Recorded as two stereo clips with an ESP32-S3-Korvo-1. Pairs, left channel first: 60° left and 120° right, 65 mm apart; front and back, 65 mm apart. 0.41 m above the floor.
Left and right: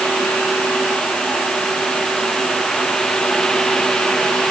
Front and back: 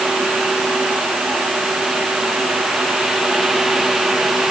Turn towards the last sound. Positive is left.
No sound to turn to.